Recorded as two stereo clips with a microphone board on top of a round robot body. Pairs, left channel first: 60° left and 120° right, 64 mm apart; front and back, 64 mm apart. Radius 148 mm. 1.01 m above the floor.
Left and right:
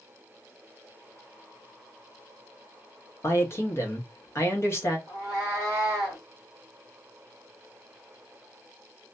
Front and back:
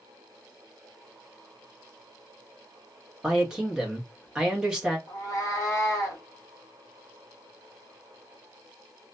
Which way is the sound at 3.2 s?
105° left.